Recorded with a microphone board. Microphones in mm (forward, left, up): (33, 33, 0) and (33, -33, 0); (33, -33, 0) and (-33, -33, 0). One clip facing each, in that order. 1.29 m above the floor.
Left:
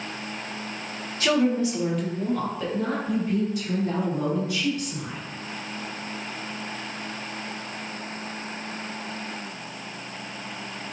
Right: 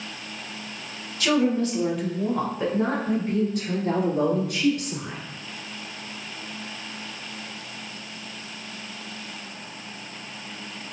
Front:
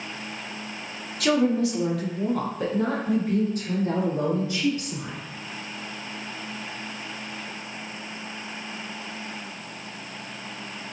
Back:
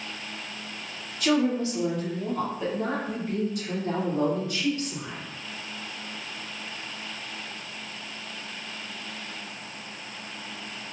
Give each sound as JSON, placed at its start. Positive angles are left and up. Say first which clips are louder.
{"t": 1.2, "sound": "a woman speaking", "louder": "even, front 2 dB", "azimuth_deg": 30, "distance_m": 1.2}